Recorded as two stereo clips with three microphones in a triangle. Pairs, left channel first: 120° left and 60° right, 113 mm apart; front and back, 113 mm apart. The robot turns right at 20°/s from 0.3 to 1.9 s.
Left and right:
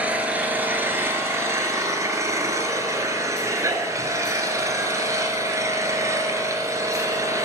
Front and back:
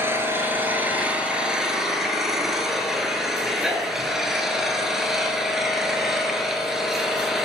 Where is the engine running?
125° right, 0.8 m; by 7.5 s 95° right, 0.8 m.